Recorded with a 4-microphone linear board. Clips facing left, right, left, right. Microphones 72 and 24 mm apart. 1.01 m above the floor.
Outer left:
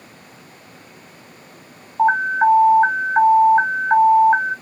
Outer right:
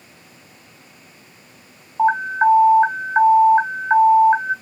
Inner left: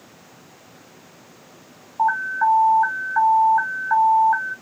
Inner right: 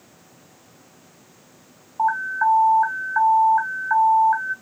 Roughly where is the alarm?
Centre.